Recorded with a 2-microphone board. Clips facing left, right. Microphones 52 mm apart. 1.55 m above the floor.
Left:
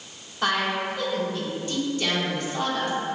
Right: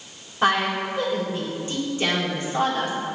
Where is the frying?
No frying in this recording.